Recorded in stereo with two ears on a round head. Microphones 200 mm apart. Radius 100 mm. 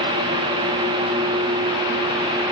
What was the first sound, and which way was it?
Only background noise.